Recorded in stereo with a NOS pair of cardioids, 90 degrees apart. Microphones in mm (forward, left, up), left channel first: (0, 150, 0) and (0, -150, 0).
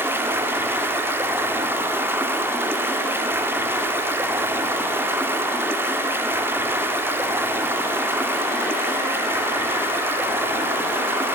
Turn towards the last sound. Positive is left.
turn(degrees=-5)